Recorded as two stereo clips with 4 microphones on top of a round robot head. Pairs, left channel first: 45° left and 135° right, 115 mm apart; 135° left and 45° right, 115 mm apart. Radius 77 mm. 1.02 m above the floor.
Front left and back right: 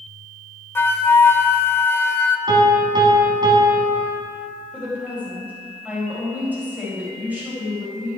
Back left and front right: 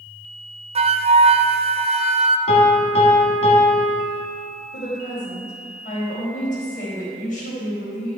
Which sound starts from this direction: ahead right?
A flute, at 0.8 s.